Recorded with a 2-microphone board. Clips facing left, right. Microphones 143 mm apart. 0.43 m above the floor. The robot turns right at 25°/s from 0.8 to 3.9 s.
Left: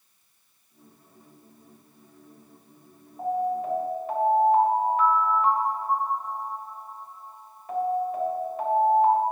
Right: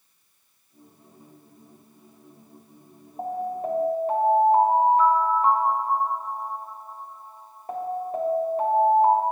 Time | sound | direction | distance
3.2 | an alarm | 45° right (ahead or behind) | 3 m